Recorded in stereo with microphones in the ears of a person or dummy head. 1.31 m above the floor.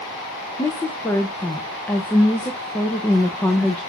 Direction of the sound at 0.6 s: 10° left (ahead or behind).